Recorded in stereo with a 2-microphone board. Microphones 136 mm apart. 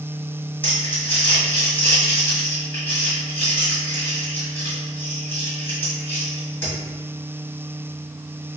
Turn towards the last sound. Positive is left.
turn(degrees=15)  # may be behind; listen again after turning